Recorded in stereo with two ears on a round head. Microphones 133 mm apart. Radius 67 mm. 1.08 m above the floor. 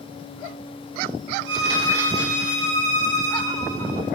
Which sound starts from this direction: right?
A violin, at 1.5 s.